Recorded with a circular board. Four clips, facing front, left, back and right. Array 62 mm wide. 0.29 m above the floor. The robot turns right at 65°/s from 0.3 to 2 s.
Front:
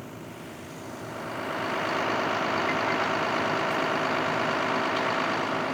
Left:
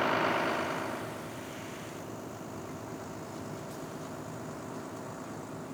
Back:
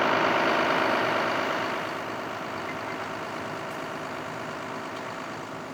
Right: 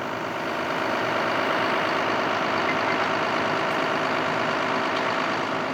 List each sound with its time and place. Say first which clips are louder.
0.0 s a vehicle: even, back 18 dB; 175° left; by 5.8 s 60° right